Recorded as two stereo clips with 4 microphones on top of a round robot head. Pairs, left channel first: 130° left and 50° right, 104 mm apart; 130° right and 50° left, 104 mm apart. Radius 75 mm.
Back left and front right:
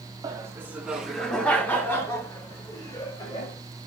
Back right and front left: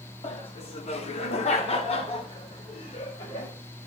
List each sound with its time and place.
0.2 s laughter: 105° right, 1.1 m; by 3.6 s 175° right, 2.5 m